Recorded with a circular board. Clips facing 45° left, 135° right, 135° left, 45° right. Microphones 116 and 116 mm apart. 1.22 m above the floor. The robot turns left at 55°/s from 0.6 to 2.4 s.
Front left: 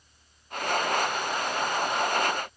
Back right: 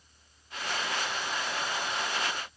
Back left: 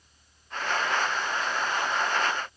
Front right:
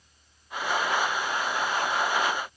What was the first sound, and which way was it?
Only background noise.